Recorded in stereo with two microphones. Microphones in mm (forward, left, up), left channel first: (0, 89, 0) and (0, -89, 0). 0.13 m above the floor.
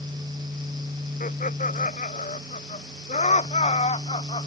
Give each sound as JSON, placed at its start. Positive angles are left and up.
{"t": 1.2, "sound": "laughter", "side_deg": 50}